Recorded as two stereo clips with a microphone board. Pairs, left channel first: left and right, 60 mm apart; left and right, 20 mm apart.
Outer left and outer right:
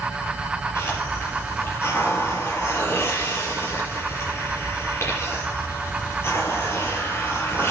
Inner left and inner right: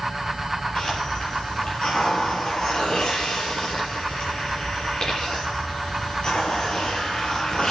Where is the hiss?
40° left (ahead or behind), 6 m.